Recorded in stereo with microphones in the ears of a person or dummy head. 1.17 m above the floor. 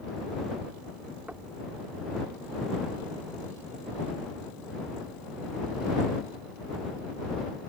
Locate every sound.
1.3 s knocking: 10° right (ahead or behind)